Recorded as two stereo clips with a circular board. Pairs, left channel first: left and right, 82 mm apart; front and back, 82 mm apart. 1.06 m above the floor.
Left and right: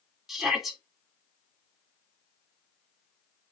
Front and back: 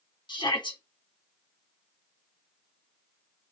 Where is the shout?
5° right, 3.5 m.